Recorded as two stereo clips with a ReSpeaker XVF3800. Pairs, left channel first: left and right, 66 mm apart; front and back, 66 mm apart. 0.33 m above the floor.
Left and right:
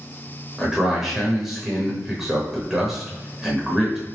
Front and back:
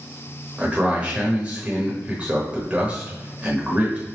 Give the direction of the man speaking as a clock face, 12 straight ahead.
5 o'clock.